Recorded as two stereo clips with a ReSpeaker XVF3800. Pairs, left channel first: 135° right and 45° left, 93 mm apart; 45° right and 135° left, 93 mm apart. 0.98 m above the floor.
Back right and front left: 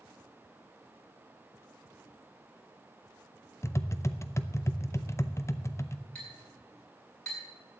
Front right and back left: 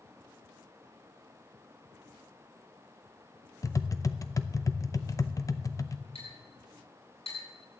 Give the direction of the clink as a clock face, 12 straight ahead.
2 o'clock.